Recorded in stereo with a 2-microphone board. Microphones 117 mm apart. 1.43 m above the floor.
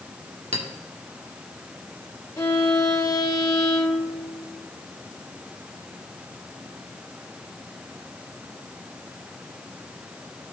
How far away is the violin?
About 1.4 m.